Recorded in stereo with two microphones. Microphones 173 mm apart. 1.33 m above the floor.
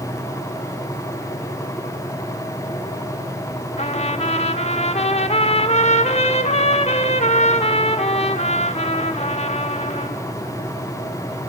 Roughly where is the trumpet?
Left.